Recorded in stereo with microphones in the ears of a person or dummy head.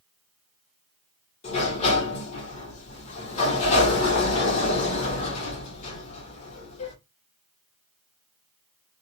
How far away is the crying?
I don't hear crying.